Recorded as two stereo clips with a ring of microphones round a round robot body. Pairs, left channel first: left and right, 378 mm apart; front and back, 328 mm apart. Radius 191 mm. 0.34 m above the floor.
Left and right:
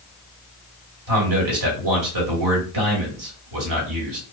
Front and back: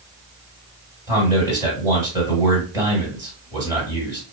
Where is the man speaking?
105° right, 1.4 m.